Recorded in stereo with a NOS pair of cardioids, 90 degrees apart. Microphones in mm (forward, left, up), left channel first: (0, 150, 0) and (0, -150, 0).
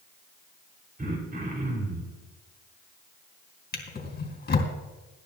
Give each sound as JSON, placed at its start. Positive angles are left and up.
{"t": 1.0, "sound": "throat clearing", "azimuth_deg": -30, "distance_m": 3.5}
{"t": 3.7, "sound": "a drawer", "azimuth_deg": 35, "distance_m": 3.0}